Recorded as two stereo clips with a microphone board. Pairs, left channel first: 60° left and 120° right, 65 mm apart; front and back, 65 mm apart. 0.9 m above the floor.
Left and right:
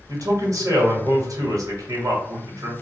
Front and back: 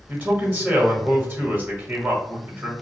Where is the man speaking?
130° right, 1.6 m.